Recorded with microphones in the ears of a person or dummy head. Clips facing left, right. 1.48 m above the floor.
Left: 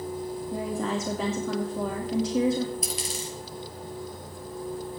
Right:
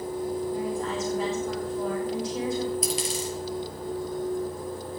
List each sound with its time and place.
0.5 s a woman speaking: 60° left (ahead or behind), 2.5 m
2.8 s a dropped coin: 70° right (ahead or behind), 4.5 m